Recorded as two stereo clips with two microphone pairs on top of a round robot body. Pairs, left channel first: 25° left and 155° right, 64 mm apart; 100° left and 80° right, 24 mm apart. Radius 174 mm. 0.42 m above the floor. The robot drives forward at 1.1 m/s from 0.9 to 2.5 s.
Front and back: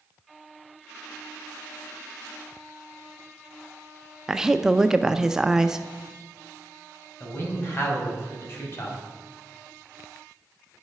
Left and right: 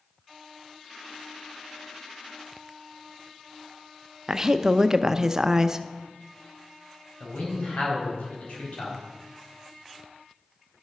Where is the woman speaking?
80° right, 0.7 m.